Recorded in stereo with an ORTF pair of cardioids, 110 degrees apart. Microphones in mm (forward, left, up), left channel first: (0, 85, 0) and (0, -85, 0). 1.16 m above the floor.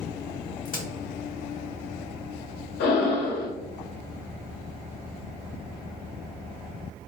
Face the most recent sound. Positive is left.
turn(degrees=70)